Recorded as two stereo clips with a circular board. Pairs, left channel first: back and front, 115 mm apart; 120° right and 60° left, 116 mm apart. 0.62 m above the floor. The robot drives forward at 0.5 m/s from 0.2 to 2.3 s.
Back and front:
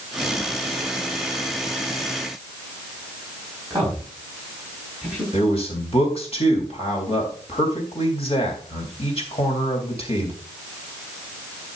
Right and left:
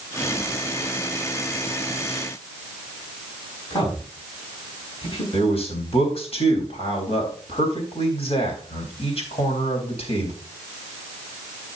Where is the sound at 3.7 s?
75° right, 5 m.